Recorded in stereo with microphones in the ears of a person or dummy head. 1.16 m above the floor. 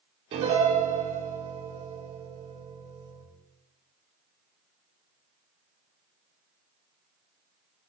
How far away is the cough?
I don't hear a cough.